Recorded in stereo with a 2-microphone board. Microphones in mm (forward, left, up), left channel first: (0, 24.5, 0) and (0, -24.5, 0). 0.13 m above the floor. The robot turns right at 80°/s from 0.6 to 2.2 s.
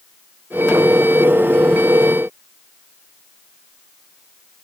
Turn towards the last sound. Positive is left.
No sound to turn to.